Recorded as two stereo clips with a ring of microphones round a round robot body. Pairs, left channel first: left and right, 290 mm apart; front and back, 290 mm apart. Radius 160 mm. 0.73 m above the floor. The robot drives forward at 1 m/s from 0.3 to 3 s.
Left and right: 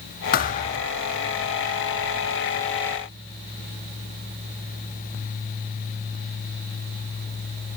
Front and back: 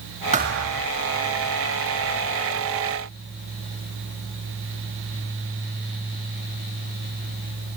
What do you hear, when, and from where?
0.3 s a thud: 125° left, 0.6 m; by 0.9 s 160° left, 0.9 m